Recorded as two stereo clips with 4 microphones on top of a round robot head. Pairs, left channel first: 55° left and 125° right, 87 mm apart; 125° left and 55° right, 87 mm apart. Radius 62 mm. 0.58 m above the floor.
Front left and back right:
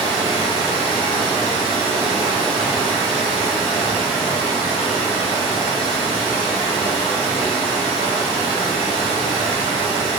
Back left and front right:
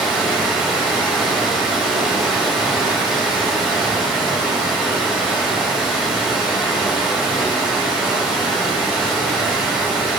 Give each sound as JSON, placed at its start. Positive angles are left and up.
{"t": 0.0, "sound": "running water", "azimuth_deg": -135, "distance_m": 1.6}